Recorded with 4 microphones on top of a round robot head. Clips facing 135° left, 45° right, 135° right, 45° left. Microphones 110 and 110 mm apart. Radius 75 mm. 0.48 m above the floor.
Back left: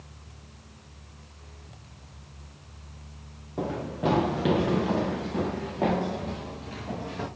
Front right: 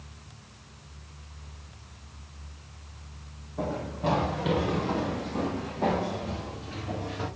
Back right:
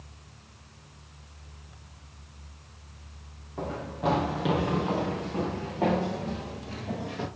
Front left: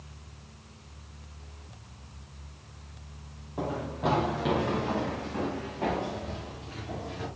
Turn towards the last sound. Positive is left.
turn(degrees=-175)